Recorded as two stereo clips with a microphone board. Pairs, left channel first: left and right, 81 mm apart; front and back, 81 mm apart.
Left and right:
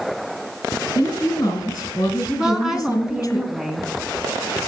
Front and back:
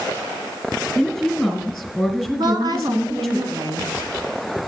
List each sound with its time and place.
0.9 s a woman speaking: 100° left, 1.9 m
2.4 s a woman speaking: 175° right, 2.0 m